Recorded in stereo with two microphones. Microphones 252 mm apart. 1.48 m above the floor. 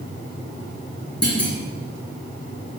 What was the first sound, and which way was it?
A clunk, 80° left.